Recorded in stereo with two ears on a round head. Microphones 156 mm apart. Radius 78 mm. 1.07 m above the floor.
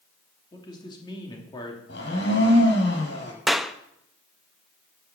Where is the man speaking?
25° left (ahead or behind), 3 m.